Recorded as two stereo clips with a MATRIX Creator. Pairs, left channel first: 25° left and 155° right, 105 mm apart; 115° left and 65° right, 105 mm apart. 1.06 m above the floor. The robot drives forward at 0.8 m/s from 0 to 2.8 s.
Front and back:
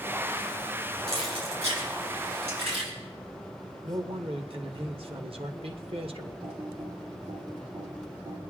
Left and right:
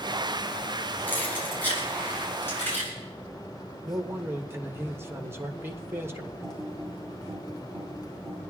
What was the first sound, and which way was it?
Keys jangling, 175° right.